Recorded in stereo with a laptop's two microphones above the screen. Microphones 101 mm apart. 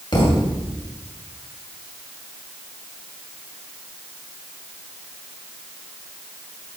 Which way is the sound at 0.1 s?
55° left (ahead or behind).